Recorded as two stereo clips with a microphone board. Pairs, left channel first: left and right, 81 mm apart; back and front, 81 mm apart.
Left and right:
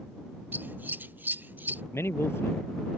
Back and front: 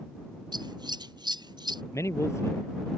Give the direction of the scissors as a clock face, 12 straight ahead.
1 o'clock.